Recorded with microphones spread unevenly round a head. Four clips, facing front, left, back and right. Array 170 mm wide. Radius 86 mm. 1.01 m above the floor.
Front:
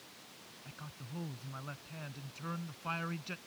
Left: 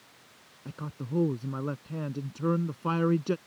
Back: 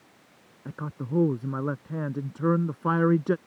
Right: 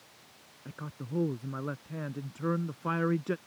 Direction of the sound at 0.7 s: 170° left.